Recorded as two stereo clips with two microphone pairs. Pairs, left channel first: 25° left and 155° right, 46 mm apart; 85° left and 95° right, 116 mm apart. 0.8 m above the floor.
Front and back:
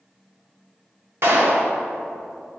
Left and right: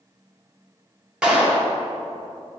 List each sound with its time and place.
1.2 s a clap: straight behind, 1.8 m